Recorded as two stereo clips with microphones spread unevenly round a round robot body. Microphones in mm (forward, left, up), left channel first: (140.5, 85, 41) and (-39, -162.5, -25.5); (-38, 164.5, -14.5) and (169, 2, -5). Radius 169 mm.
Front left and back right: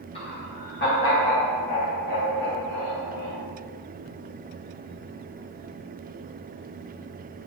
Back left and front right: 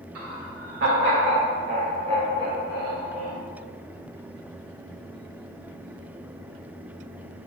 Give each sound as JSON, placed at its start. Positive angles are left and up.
{"t": 0.1, "sound": "laughter", "azimuth_deg": -25, "distance_m": 2.0}